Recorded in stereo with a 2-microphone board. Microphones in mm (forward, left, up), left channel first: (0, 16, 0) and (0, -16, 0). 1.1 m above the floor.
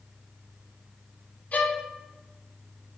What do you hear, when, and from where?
1.5 s a violin: 55° left (ahead or behind), 1.2 m